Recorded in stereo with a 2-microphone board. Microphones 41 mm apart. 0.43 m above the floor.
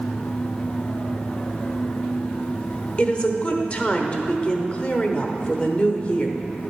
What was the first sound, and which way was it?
A woman speaking, 30° left (ahead or behind).